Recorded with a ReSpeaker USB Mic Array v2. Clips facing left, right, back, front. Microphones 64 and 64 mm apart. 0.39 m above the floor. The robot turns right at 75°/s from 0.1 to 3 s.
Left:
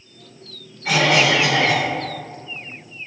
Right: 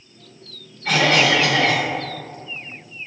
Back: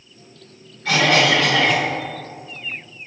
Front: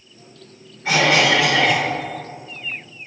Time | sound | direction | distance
0.8 | a cough | 15° left | 0.8 m